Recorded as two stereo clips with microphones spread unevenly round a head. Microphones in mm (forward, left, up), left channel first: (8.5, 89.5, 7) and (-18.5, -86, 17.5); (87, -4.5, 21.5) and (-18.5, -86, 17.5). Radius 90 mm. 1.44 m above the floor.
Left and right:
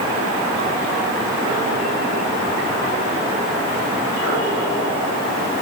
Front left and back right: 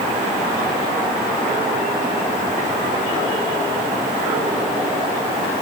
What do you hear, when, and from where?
Only background noise.